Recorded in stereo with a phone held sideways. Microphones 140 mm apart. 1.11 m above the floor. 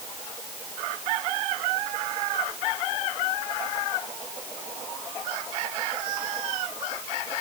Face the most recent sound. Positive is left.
No sound to turn to.